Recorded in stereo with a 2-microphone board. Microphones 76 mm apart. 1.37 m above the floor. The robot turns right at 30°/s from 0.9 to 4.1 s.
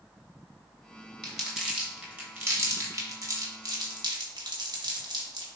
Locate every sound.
1.2 s crumpling: 5° left (ahead or behind), 2.5 m; by 5.5 s 80° right, 2.5 m